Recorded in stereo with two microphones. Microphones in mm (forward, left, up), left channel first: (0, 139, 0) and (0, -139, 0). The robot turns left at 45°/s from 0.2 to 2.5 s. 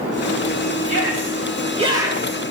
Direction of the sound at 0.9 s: 115° right.